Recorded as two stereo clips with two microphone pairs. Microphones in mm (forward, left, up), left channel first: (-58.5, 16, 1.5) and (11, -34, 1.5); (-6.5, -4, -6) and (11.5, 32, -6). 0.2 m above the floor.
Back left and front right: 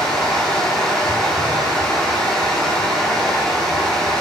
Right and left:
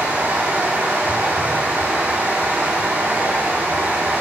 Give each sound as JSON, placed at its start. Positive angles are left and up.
{"t": 0.0, "sound": "running water", "azimuth_deg": 65, "distance_m": 5.0}